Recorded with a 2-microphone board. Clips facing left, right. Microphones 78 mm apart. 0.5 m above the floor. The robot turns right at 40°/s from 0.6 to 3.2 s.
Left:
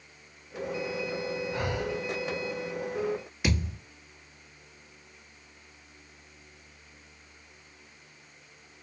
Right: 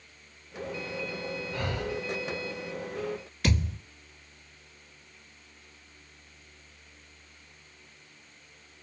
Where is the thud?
10° left (ahead or behind), 1.3 m.